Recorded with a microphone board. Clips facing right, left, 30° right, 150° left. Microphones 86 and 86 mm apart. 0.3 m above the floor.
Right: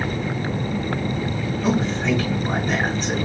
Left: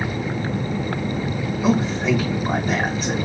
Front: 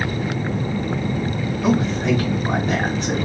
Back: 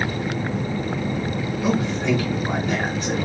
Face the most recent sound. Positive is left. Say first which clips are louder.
# left 2 dB, front 3 dB
turn(degrees=20)